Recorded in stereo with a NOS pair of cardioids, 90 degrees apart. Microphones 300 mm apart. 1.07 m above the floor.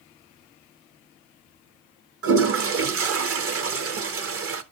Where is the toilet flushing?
55° right, 1.0 m.